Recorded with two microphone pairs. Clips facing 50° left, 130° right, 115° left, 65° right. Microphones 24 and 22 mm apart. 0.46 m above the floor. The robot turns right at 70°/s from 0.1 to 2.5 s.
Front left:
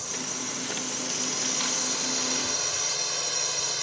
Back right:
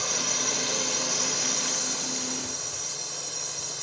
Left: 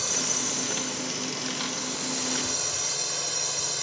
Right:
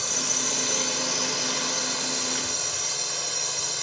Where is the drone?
160° right; by 3.8 s 10° left.